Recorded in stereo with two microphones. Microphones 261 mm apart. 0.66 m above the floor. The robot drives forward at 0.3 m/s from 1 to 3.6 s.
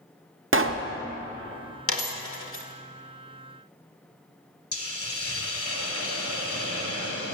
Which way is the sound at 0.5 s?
50° right (ahead or behind).